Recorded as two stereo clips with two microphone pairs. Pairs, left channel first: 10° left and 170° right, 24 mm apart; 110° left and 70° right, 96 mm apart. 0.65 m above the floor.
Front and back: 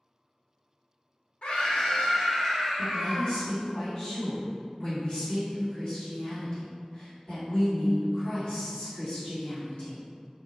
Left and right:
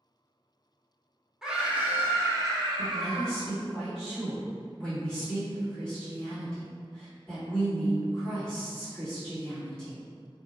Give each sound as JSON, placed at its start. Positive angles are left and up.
{"t": 1.4, "sound": "a scream", "azimuth_deg": 15, "distance_m": 0.8}
{"t": 2.8, "sound": "a woman speaking", "azimuth_deg": 30, "distance_m": 1.9}